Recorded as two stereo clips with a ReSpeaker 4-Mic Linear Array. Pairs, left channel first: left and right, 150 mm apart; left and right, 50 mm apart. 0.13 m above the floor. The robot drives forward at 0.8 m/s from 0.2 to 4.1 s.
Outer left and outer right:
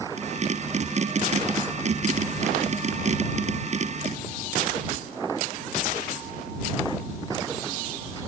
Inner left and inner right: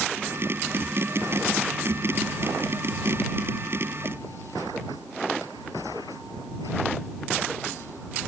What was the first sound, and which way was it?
Only background noise.